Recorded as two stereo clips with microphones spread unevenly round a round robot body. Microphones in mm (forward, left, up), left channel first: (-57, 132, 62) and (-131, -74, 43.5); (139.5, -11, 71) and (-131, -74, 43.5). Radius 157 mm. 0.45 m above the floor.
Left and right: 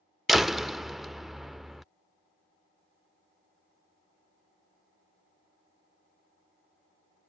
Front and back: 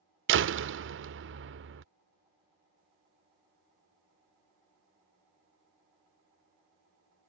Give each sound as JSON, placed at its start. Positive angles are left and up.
{"t": 0.3, "sound": "a door slam", "azimuth_deg": 165}